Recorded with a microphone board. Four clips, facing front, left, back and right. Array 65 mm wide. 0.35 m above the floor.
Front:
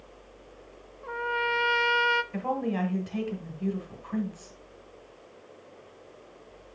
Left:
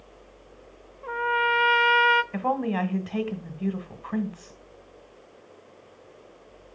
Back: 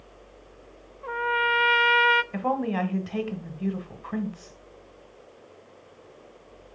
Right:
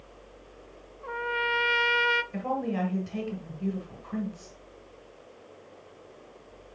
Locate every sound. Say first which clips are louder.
1.0 s a trumpet: left 5 dB, back 4 dB; 150° left, 0.5 m
2.3 s a woman speaking: left 4 dB, back 3 dB; 125° left, 1.3 m